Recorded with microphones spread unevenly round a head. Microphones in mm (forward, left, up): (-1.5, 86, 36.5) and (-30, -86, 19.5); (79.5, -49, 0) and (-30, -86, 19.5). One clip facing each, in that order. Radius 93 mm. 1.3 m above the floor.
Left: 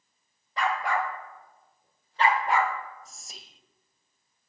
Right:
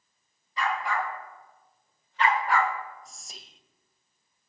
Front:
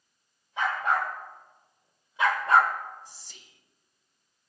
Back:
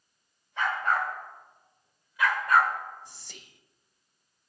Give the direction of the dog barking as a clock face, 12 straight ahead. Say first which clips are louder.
Left 2 dB, front 1 dB; 9 o'clock.